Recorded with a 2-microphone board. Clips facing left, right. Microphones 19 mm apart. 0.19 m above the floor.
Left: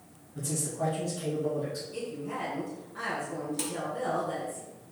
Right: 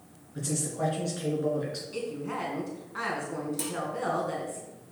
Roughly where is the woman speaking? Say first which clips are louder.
Right 2 dB; right.